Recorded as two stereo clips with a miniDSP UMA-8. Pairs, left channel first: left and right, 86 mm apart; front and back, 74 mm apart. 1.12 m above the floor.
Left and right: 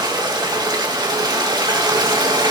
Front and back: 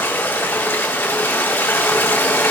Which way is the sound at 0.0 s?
55° right.